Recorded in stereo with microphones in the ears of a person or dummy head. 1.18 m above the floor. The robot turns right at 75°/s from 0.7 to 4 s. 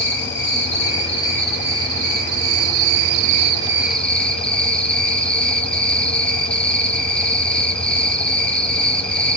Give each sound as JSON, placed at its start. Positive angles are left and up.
{"t": 0.0, "sound": "an insect", "azimuth_deg": 120, "distance_m": 1.0}